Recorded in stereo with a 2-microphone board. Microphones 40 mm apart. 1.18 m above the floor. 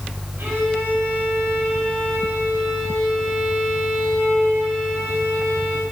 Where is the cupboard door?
No cupboard door in this recording.